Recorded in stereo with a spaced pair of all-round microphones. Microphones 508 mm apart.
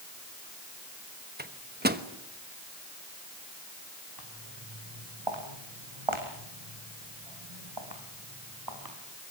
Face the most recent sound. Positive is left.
turn(degrees=-45)  # may be behind; listen again after turning